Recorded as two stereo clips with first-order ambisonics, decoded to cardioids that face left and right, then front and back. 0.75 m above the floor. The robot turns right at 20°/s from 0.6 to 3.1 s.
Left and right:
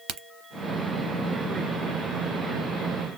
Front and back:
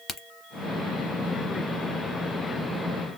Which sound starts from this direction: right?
A crack, at 0.1 s.